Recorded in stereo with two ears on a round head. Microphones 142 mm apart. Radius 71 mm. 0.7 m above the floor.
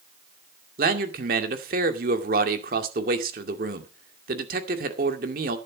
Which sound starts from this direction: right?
A man speaking, at 0.8 s.